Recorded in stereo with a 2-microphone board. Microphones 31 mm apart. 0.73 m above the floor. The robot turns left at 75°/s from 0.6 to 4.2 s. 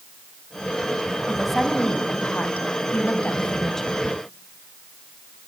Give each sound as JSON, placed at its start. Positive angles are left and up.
{"t": 1.3, "sound": "a woman speaking", "azimuth_deg": -160, "distance_m": 4.5}